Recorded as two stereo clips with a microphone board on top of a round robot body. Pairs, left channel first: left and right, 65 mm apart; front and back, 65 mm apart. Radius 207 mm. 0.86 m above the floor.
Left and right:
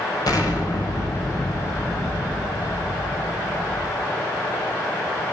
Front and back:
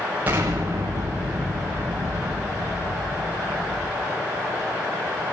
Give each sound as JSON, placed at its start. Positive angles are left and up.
{"t": 0.3, "sound": "an explosion", "azimuth_deg": 115, "distance_m": 7.5}